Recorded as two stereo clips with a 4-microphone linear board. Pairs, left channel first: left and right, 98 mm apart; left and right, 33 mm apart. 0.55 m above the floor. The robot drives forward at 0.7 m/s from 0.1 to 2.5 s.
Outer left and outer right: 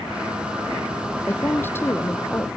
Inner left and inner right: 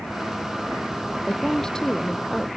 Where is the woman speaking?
20° left (ahead or behind).